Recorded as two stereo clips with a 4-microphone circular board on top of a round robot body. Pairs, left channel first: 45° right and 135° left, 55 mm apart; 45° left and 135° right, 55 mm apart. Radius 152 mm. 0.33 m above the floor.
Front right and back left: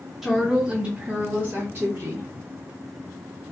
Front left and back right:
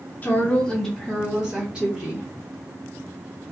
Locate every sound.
0.2 s a woman speaking: 50° left, 1.1 m; by 2.2 s 170° left, 1.5 m